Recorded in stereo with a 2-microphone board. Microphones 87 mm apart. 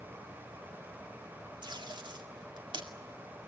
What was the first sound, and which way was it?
Tape being pulled, 65° right (ahead or behind).